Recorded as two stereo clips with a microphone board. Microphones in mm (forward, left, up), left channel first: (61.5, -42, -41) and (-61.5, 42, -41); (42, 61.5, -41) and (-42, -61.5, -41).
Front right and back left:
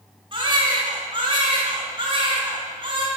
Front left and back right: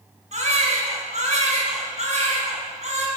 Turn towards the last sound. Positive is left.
turn(degrees=-160)